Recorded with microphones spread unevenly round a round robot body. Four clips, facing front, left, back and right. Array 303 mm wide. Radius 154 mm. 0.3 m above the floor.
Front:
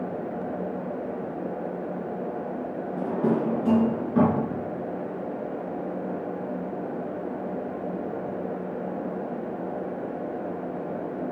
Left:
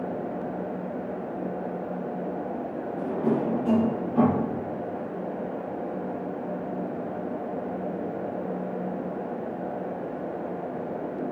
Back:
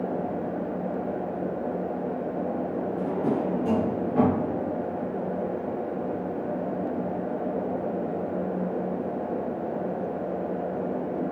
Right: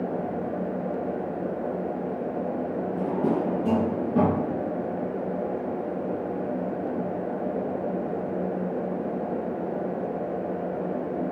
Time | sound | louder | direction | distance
2.9 | a drawer | even, front 3 dB | 60° right | 3.5 m